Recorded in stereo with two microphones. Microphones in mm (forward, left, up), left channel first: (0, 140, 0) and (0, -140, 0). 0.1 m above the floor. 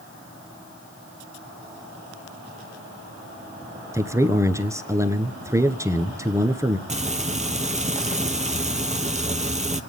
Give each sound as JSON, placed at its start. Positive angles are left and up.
{"t": 3.9, "sound": "a man speaking", "side_deg": -10, "distance_m": 1.2}
{"t": 6.9, "sound": "frying", "side_deg": -25, "distance_m": 0.9}